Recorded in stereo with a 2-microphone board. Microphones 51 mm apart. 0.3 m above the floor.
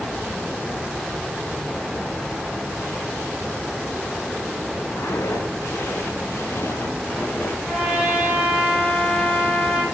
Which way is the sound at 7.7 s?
Centre (ahead or behind).